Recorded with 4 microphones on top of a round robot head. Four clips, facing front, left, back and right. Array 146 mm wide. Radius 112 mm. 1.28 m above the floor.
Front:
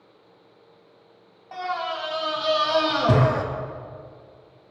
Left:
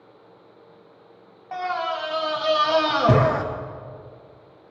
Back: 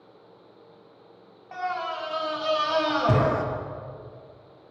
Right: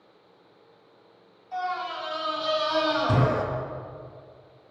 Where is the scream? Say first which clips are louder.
Left 4 dB, front 1 dB; 75° left, 2 m.